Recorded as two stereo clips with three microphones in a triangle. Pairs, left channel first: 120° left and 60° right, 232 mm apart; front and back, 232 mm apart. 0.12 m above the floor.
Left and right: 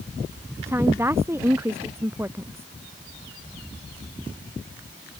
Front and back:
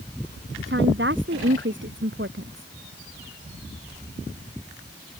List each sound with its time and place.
0.7 s a woman speaking: 140° right